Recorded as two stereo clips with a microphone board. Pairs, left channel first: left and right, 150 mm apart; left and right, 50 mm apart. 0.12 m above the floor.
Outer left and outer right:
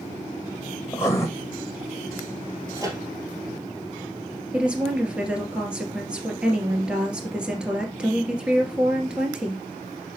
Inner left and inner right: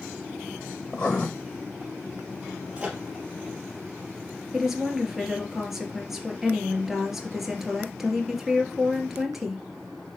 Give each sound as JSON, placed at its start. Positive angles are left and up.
{"t": 0.9, "sound": "writing", "side_deg": 15, "distance_m": 2.0}
{"t": 2.8, "sound": "a microwave", "side_deg": -25, "distance_m": 2.5}
{"t": 4.5, "sound": "a woman speaking", "side_deg": -5, "distance_m": 2.5}